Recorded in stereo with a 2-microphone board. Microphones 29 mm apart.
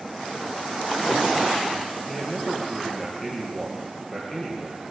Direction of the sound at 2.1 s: 15° left (ahead or behind).